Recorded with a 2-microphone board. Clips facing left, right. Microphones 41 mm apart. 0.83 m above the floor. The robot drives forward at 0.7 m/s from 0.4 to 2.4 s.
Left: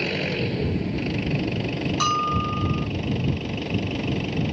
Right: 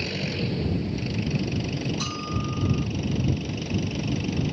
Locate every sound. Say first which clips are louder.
0.0 s an engine running: left 4 dB; 30° left (ahead or behind); by 4.5 s 25° left (ahead or behind)
2.0 s a bell: left 8 dB; 65° left (ahead or behind); by 2.9 s 50° left (ahead or behind)